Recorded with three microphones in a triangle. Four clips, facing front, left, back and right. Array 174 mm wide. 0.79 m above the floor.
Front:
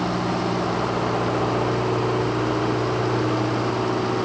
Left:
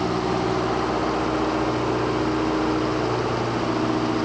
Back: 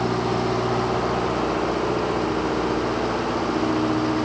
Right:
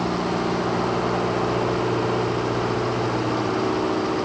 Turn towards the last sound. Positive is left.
No sound to turn to.